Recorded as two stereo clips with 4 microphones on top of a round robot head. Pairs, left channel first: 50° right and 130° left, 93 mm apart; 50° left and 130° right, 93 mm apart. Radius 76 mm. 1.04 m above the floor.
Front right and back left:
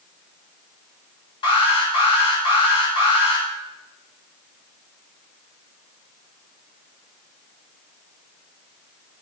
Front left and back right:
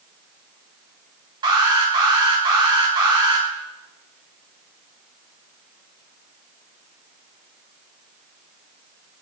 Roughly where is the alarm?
Right.